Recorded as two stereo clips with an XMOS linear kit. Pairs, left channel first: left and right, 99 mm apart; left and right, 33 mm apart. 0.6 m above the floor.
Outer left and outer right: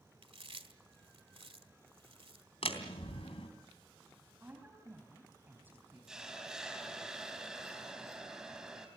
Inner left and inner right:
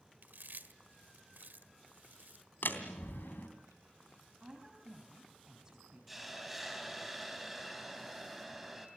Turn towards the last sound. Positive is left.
turn(degrees=-5)  # may be behind; listen again after turning